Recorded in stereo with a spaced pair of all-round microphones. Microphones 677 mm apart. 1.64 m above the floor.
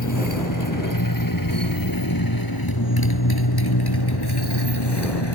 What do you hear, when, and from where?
0.0 s a motorcycle: 25° left (ahead or behind); by 5.4 s 35° left (ahead or behind)